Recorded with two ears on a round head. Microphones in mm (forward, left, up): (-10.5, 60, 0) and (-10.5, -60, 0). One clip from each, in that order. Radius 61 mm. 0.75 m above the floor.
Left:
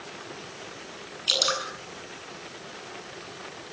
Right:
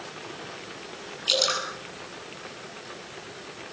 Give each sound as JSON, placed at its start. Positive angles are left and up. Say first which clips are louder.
{"t": 1.3, "sound": "dripping", "louder": "even", "side_deg": 15, "distance_m": 8.5}